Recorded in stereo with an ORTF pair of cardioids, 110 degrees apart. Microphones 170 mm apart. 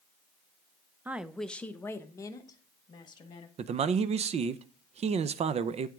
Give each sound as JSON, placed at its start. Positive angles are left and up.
{"t": 1.1, "sound": "a woman speaking", "azimuth_deg": -10, "distance_m": 0.5}
{"t": 3.6, "sound": "a man speaking", "azimuth_deg": -40, "distance_m": 0.6}